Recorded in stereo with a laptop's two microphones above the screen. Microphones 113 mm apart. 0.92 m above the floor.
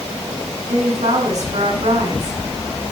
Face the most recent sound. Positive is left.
turn(degrees=-80)